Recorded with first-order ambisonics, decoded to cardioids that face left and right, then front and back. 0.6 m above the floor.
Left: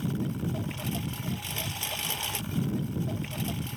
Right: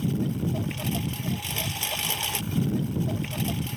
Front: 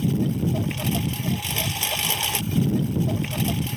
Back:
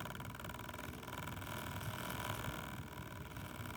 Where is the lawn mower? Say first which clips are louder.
Right 4 dB, front 20 dB; 15° right.